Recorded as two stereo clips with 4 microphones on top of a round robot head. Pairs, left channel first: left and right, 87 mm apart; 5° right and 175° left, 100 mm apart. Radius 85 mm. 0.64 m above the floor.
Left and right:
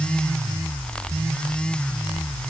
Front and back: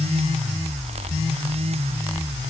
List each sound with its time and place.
Only background noise.